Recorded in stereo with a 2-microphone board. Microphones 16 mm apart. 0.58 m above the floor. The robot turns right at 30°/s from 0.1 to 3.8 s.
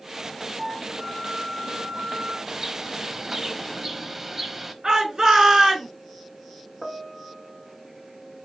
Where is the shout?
40° right (ahead or behind), 3.5 m.